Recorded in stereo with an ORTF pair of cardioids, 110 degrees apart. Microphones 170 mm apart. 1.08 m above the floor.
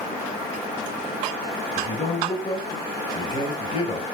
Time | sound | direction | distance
1.8 | a man speaking | 30° left | 5.5 m